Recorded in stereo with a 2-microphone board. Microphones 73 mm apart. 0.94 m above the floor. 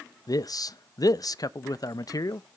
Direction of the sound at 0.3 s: 60° left (ahead or behind).